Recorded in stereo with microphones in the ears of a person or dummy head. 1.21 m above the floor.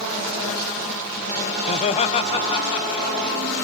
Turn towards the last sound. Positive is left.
turn(degrees=30)  # may be behind; listen again after turning